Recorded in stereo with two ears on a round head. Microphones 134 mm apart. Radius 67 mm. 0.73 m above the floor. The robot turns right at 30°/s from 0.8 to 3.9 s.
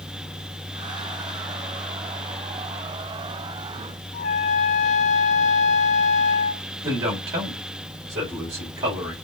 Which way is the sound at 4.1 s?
45° left (ahead or behind).